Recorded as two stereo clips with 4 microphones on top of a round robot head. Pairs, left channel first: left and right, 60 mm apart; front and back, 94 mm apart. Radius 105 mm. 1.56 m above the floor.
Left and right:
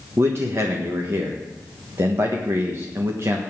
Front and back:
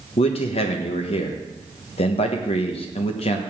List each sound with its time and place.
0.2 s a man speaking: 30° right, 1.4 m